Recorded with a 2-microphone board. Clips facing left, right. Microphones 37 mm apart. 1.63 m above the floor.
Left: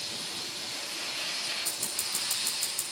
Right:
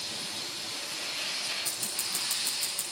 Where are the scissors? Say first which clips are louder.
Even; 20° right (ahead or behind), 6 m.